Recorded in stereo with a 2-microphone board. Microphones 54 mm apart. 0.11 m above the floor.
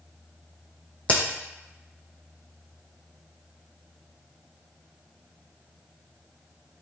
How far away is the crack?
About 0.8 m.